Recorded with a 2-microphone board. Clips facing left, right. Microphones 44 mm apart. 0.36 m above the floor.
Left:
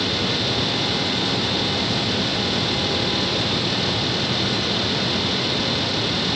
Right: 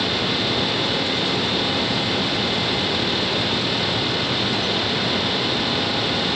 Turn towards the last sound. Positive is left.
No sound to turn to.